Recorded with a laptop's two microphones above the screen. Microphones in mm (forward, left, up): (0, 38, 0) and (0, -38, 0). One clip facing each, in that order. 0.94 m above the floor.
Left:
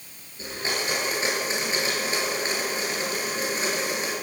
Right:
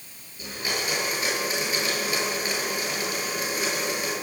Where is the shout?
I don't hear a shout.